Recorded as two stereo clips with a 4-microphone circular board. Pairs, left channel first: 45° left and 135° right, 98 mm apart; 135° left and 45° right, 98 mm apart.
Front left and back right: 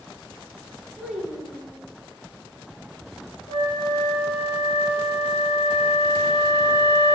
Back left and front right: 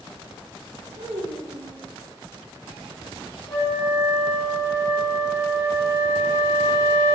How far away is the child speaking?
About 8.5 m.